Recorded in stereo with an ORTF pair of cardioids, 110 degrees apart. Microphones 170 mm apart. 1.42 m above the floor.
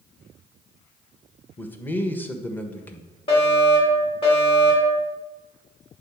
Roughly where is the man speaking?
Ahead.